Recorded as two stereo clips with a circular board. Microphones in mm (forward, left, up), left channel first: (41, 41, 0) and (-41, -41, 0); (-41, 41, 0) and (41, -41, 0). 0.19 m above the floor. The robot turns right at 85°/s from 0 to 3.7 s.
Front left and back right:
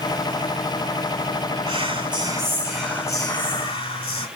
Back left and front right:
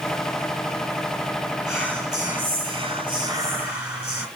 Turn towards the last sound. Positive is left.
turn(degrees=10)